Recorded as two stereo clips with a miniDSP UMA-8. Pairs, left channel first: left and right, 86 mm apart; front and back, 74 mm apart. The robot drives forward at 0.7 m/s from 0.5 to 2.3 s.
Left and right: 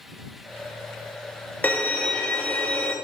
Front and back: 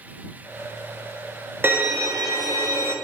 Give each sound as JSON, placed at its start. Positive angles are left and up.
{"t": 1.6, "sound": "a violin", "azimuth_deg": 145, "distance_m": 0.6}